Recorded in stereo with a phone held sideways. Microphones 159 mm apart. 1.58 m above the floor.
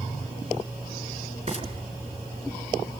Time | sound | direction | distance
1.5 | frying | 35° right (ahead or behind) | 4.5 m